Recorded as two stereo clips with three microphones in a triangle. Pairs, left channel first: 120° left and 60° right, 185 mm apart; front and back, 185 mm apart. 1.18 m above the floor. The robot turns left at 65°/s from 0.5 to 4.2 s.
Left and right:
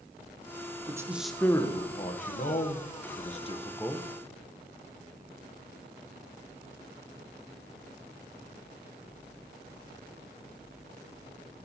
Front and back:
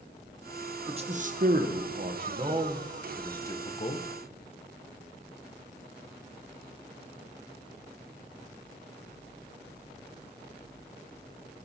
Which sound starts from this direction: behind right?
A man speaking, at 0.9 s.